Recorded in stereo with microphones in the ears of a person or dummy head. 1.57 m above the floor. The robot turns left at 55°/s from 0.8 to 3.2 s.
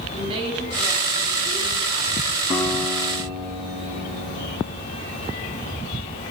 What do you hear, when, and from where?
0.1 s a woman speaking: 35° right, 4 m; by 2.4 s 125° right, 4 m
2.5 s a guitar: 30° left, 2 m; by 4.8 s 10° right, 2 m